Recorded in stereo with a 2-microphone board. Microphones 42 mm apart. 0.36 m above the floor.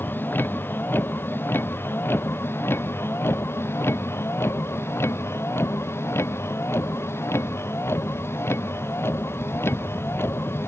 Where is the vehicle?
55° left (ahead or behind); by 10.7 s 75° left (ahead or behind).